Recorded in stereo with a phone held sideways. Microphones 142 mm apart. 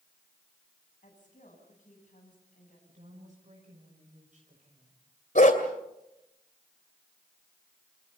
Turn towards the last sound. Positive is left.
turn(degrees=65)  # may be behind; listen again after turning